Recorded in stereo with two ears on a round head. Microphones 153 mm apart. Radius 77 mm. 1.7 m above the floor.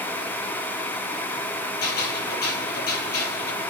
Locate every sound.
1.8 s a gunshot: 60° left (ahead or behind), 7 m